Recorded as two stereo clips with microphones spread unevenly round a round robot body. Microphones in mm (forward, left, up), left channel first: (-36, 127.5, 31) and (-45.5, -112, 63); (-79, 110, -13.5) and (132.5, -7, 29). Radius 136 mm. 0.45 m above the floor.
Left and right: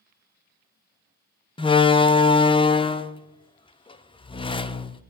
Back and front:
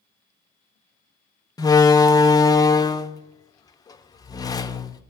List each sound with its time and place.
1.6 s a door slam: 115° left, 0.7 m